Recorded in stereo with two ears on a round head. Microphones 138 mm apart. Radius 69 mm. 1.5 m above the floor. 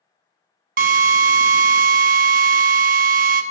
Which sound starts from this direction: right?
A drill, at 0.8 s.